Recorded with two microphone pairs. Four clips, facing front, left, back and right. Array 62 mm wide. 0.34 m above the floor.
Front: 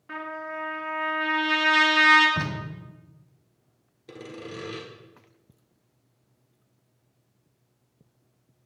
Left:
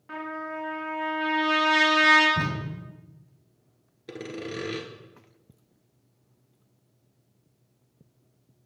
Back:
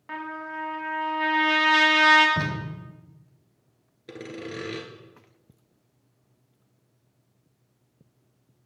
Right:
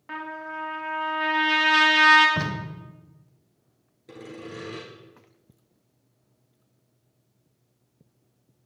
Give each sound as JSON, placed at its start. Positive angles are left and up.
{"t": 0.1, "sound": "a trumpet", "azimuth_deg": -145, "distance_m": 2.0}
{"t": 2.4, "sound": "tape being pulled", "azimuth_deg": -95, "distance_m": 1.3}
{"t": 4.1, "sound": "sawing", "azimuth_deg": 135, "distance_m": 1.2}